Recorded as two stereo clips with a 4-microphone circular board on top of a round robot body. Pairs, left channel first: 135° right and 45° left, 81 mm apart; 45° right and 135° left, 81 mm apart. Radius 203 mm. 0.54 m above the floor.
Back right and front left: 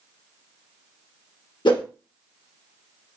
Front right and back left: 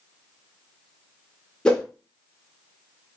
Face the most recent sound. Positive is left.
turn(degrees=-125)